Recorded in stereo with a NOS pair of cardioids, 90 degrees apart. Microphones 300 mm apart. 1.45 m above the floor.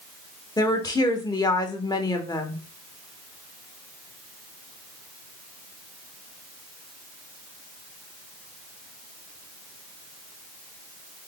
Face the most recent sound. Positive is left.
turn(degrees=15)